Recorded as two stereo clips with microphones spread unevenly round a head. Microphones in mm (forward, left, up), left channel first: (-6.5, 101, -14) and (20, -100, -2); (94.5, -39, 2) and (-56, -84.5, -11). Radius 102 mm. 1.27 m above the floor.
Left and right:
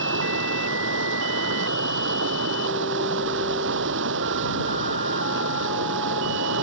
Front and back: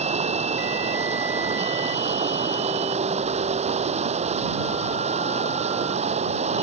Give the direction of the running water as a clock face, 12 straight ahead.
4 o'clock.